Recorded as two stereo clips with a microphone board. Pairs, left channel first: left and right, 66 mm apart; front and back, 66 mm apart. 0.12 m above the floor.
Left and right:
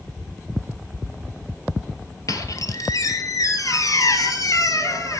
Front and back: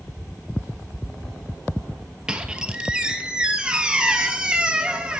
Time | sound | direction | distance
2.3 | a squeak | 105° left | 0.9 m